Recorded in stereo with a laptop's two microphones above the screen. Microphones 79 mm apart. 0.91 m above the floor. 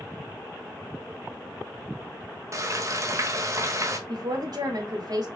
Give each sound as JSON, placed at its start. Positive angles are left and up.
{"t": 2.5, "sound": "frying", "side_deg": -40, "distance_m": 0.9}
{"t": 4.1, "sound": "a woman speaking", "side_deg": -55, "distance_m": 2.0}